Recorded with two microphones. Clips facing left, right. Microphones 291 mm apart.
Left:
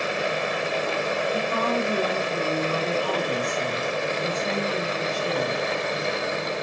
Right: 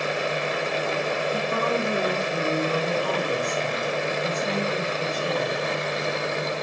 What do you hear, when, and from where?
1.3 s a woman speaking: 20° right (ahead or behind), 1.4 m